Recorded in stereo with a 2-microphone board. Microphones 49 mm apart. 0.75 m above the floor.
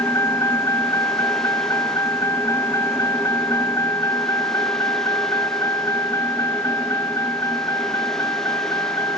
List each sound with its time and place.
0.0 s a vehicle: 80° left; by 9.2 s 90° left